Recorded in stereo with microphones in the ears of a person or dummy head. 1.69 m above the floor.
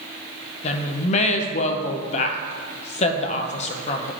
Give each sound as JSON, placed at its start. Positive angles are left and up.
{"t": 0.6, "sound": "a woman speaking", "side_deg": 35, "distance_m": 0.9}